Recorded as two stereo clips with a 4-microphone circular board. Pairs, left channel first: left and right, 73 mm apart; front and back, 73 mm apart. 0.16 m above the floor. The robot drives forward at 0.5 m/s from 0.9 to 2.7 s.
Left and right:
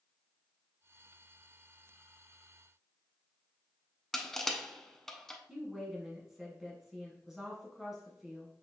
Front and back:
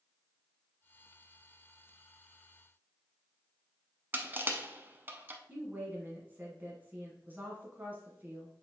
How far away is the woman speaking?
About 1.1 m.